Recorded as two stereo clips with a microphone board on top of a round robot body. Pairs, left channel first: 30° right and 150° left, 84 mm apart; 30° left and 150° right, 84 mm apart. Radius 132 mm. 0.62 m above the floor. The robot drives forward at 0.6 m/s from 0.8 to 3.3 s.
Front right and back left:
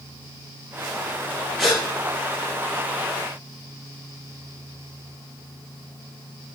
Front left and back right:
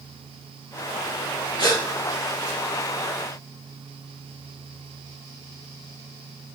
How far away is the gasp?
About 5 m.